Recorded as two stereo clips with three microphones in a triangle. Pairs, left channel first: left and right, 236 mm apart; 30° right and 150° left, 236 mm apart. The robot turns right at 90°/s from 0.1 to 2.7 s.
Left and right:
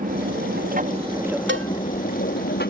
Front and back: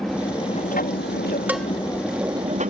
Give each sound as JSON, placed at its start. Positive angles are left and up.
{"t": 0.0, "sound": "an aircraft", "azimuth_deg": -120}
{"t": 1.5, "sound": "a cowbell", "azimuth_deg": -130}